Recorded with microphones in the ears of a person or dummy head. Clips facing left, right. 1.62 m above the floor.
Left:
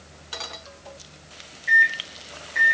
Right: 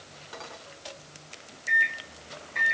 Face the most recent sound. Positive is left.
turn(degrees=10)  # may be behind; listen again after turning